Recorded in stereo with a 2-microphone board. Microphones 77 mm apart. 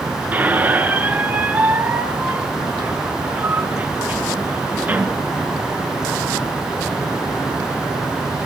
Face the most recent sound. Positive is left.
turn(degrees=-20)  # may be behind; listen again after turning